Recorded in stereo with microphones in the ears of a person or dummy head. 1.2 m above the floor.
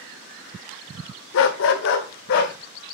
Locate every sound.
1.3 s a dog barking: 65° left (ahead or behind), 1.5 m; by 2.5 s 60° left (ahead or behind), 2.5 m